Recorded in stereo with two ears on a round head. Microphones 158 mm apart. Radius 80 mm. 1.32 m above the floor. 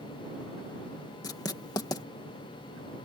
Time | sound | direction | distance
1.2 | writing | 20° left (ahead or behind) | ?